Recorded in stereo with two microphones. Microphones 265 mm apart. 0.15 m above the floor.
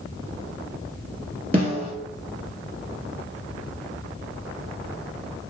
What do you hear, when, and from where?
1.5 s a snare drum: 20° right (ahead or behind), 2 m